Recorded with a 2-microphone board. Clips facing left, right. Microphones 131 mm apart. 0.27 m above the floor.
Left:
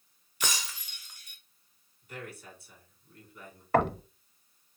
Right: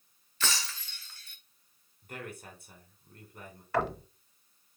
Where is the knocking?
55° left (ahead or behind), 0.9 m.